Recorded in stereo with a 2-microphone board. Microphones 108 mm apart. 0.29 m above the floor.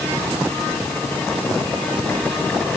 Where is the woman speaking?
I don't hear a woman speaking.